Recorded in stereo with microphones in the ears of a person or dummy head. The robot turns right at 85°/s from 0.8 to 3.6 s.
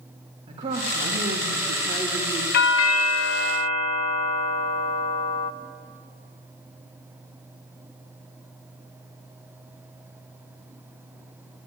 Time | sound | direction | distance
0.5 | a woman speaking | 150° right | 3.5 m
2.5 | a doorbell | 55° left | 1.0 m